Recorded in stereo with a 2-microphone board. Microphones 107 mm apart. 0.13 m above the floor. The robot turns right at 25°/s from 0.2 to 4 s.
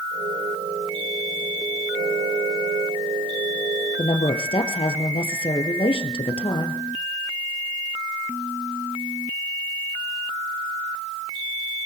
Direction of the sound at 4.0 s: 55° left (ahead or behind).